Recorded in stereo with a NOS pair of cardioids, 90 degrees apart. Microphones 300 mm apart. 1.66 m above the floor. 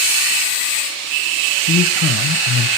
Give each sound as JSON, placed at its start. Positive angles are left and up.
{"t": 1.7, "sound": "a man speaking", "azimuth_deg": 45, "distance_m": 1.4}